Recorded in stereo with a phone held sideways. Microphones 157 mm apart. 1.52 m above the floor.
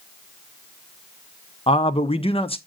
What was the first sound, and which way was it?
A man speaking, 35° left (ahead or behind).